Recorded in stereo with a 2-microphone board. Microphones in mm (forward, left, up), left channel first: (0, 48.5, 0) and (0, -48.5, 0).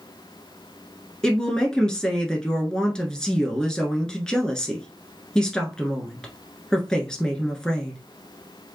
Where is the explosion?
No explosion in this recording.